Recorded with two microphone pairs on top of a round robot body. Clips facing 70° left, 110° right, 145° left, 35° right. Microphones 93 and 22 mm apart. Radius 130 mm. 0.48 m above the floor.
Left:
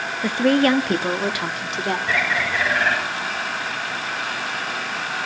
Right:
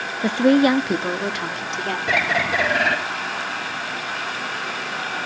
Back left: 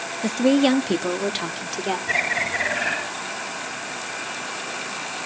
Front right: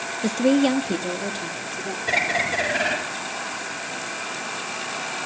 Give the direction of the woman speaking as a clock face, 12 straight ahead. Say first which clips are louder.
Right 2 dB, back left 1 dB; 4 o'clock.